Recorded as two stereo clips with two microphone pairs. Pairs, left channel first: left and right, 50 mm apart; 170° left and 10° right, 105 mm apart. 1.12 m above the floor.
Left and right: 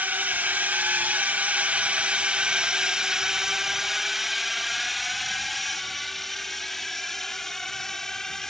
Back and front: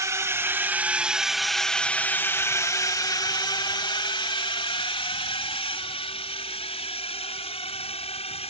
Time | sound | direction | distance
0.0 | a drone | 55° right | ?